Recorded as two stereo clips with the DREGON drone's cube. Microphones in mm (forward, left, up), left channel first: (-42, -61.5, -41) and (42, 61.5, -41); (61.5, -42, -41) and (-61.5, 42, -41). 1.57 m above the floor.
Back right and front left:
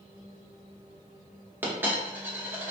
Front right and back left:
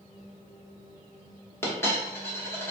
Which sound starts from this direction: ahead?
A dropped coin, at 1.6 s.